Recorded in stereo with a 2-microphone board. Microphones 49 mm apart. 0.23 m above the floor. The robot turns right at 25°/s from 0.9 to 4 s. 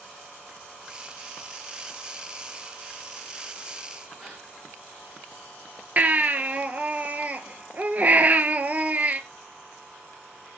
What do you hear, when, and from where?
4.2 s a gasp: 20° right (ahead or behind), 9.5 m
6.0 s a baby crying: 35° right (ahead or behind), 1.5 m